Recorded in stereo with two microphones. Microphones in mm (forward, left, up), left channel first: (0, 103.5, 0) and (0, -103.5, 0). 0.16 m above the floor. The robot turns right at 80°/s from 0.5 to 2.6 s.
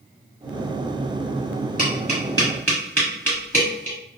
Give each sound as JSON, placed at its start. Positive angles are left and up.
{"t": 1.8, "sound": "tapping", "side_deg": 40, "distance_m": 1.7}